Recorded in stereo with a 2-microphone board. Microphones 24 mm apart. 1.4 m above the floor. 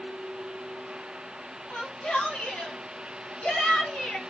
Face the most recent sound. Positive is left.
turn(degrees=85)